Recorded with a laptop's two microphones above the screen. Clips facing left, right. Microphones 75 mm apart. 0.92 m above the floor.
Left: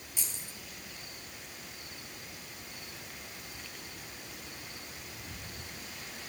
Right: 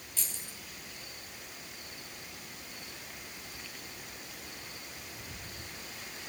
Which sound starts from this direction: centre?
Keys jangling, at 0.2 s.